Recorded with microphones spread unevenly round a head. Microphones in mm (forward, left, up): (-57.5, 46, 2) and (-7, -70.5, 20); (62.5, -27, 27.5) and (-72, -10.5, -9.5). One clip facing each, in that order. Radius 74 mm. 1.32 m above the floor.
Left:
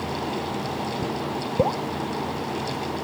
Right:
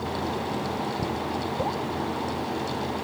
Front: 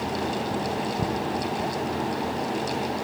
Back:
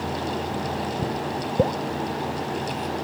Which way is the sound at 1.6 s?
160° left.